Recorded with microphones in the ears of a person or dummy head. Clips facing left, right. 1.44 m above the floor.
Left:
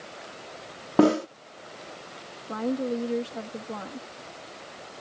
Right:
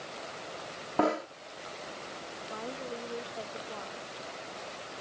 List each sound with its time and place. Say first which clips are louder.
1.0 s a snare drum: left 9 dB; 50° left (ahead or behind)
2.5 s a woman speaking: left 13 dB; 75° left (ahead or behind)